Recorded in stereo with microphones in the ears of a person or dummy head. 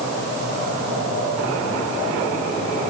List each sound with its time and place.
Only background noise.